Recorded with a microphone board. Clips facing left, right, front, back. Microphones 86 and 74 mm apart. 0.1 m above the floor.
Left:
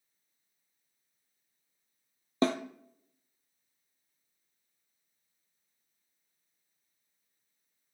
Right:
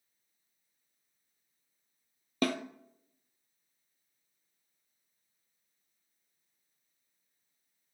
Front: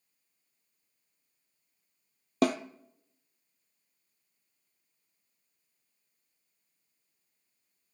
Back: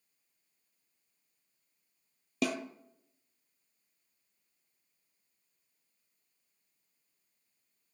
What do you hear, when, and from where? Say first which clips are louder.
2.4 s a snare drum: left 3 dB, front 6 dB; 30° left, 0.7 m